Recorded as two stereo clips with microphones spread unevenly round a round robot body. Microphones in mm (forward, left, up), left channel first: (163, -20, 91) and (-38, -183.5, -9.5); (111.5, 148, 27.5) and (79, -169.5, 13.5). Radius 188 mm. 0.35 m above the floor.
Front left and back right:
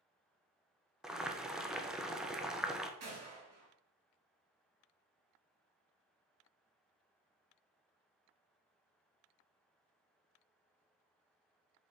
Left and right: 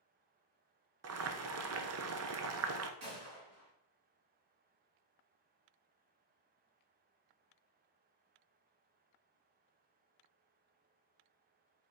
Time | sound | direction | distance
1.0 | boiling | 50° right | 0.9 m
3.0 | a gunshot | 145° right | 4.5 m